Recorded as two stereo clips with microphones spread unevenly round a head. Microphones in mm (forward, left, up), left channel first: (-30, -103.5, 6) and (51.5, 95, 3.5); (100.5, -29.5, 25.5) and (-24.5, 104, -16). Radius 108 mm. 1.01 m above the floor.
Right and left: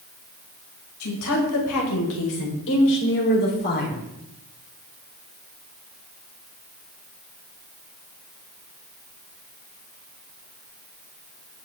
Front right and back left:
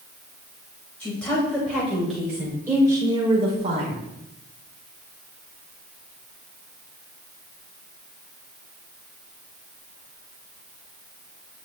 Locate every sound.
1.0 s a woman speaking: 130° right, 5 m; by 4.0 s 165° right, 3.5 m